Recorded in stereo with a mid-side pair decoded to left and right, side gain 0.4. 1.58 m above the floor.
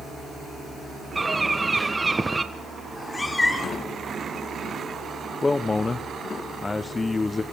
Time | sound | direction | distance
1.1 | a bird | 20° right | 1.4 m
2.9 | a cat meowing | 20° left | 2.5 m
5.4 | a man speaking | 30° left | 1.0 m